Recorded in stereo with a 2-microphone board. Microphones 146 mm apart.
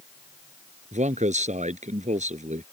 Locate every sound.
0.9 s a man speaking: 55° right (ahead or behind)